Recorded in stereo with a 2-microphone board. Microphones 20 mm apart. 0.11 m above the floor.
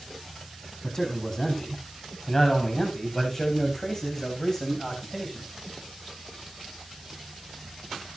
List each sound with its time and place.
0.8 s a man speaking: 15° left (ahead or behind), 6 m; by 5.5 s 10° left (ahead or behind), 9 m